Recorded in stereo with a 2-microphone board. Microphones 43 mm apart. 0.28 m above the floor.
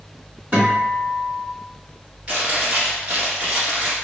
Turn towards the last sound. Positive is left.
turn(degrees=-30)  # may be behind; listen again after turning